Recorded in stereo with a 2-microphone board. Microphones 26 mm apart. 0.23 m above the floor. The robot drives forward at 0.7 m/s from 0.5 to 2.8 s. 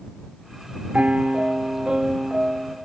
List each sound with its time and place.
0.9 s a piano: 60° right (ahead or behind), 0.7 m; by 2.8 s 20° right (ahead or behind), 1.7 m